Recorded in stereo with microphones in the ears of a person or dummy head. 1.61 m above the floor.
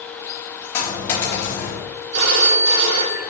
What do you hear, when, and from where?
0.7 s a dropped coin: 15° left (ahead or behind), 3.5 m
2.1 s a phone ringing: 70° right (ahead or behind), 1.9 m